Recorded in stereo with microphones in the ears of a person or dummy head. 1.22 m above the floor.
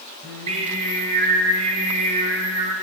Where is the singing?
30° right (ahead or behind), 1.5 m.